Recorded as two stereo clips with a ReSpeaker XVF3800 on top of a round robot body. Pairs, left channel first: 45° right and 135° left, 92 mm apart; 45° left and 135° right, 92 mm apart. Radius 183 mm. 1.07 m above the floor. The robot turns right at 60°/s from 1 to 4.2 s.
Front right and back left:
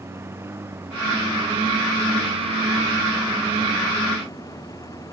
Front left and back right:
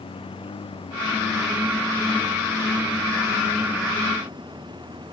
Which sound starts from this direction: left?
A lawn mower, at 0.0 s.